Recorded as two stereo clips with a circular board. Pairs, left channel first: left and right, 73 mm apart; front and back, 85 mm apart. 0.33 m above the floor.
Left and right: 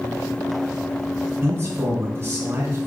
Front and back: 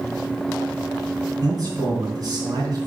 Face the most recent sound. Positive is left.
turn(degrees=-140)